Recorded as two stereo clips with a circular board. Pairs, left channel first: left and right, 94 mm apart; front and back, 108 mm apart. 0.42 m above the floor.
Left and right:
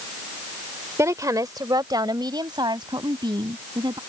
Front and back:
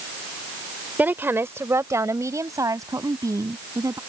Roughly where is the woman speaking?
Behind right.